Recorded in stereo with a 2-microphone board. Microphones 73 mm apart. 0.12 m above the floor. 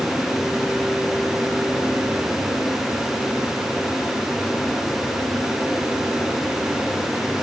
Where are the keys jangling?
No keys jangling in this recording.